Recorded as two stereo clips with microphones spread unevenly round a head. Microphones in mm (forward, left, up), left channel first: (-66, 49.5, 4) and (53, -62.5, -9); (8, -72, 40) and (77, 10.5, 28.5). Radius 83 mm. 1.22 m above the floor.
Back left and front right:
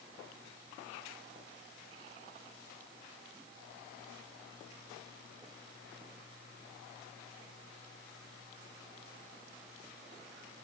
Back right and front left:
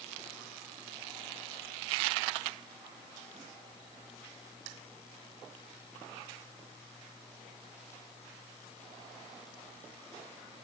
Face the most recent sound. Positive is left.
No sound to turn to.